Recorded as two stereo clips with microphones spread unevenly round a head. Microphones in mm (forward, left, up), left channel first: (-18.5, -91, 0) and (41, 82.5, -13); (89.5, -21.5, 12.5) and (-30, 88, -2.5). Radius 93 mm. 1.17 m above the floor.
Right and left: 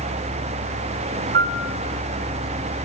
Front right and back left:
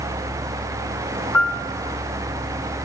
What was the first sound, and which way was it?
A piano, 35° left.